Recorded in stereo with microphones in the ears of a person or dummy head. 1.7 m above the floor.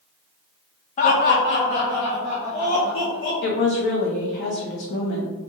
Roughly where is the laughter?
Left.